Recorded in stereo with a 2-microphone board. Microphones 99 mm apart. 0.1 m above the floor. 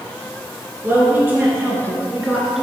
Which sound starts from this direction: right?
A woman speaking, at 0.8 s.